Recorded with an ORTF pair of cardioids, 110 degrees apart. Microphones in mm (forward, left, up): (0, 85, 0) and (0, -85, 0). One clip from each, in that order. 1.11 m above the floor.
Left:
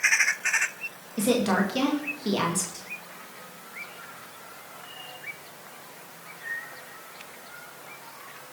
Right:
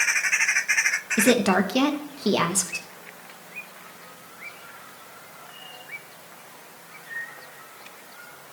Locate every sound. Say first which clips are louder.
1.2 s a woman speaking: right 3 dB; 40° right, 1.6 m